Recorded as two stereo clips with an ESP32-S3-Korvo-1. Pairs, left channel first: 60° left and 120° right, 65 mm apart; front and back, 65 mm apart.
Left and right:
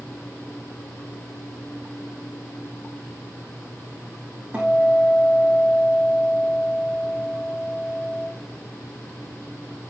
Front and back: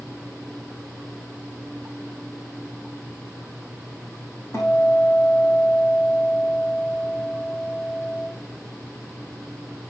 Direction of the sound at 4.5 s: 50° right.